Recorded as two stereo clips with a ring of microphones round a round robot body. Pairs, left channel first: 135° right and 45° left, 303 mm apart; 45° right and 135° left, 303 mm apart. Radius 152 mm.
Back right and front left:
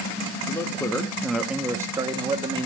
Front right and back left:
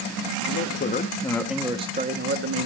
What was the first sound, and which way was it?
A man speaking, 60° right.